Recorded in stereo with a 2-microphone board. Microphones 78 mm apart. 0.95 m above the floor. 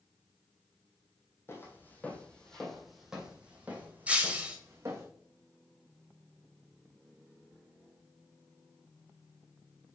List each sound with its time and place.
1.5 s footsteps: 30° left (ahead or behind), 2 m; by 5.1 s 35° right (ahead or behind), 3 m
4.1 s breaking glass: 15° right (ahead or behind), 1.4 m